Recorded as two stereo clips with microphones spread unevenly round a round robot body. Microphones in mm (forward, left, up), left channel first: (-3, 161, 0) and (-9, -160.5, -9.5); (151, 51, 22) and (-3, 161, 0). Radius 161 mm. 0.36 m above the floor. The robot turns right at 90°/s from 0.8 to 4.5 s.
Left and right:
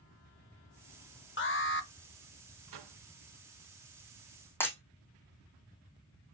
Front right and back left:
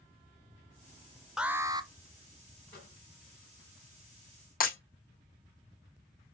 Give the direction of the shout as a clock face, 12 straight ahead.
No shout in this recording.